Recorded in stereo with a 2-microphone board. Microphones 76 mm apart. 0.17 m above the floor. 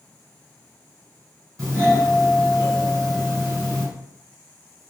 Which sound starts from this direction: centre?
A doorbell, at 1.6 s.